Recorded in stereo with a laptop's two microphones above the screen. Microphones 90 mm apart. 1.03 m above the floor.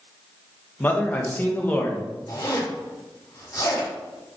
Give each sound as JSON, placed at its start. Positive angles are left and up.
{"t": 0.8, "sound": "a man speaking", "side_deg": 20, "distance_m": 0.6}
{"t": 2.3, "sound": "a zipper", "side_deg": 45, "distance_m": 1.4}